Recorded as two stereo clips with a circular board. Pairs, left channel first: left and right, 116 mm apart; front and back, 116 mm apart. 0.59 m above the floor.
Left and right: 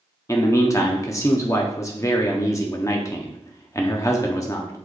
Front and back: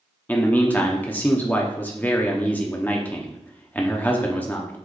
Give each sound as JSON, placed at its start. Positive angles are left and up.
{"t": 0.3, "sound": "a man speaking", "azimuth_deg": 60, "distance_m": 0.7}